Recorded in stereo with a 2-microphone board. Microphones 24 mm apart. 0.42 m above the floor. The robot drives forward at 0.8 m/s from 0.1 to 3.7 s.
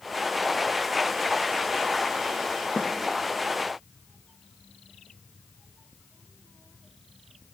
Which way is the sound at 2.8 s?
65° right (ahead or behind).